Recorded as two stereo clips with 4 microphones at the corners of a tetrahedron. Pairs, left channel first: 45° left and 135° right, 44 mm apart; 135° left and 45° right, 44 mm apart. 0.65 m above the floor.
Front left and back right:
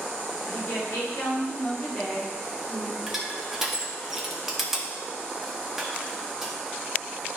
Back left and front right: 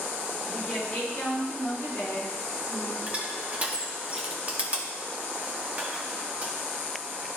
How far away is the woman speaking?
About 4 m.